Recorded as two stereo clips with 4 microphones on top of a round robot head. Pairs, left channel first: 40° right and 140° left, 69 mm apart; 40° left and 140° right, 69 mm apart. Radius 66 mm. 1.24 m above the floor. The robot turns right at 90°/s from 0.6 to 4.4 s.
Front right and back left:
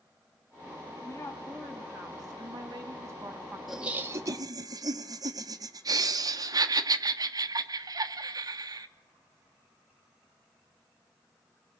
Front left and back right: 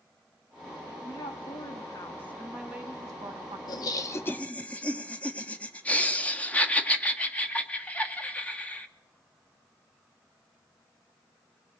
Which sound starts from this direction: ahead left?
Laughter, at 3.7 s.